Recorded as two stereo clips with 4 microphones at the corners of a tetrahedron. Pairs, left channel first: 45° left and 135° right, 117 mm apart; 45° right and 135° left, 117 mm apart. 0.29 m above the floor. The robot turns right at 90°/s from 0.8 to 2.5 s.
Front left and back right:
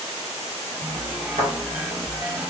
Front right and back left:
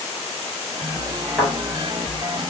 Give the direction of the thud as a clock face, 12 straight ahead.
5 o'clock.